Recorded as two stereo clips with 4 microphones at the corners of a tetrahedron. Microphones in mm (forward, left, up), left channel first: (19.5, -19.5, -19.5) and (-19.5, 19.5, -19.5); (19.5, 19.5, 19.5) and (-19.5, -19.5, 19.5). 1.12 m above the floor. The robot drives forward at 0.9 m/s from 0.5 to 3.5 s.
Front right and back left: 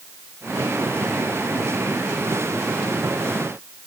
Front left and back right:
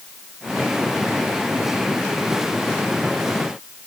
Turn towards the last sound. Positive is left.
No sound to turn to.